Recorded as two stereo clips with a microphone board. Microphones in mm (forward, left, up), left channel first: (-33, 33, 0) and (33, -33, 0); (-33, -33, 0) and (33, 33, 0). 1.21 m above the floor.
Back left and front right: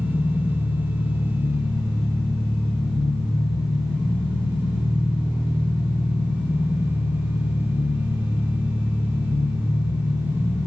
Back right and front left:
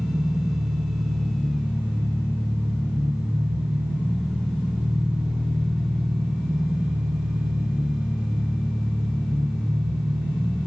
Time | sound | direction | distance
0.0 | an engine running | 115° left | 9 m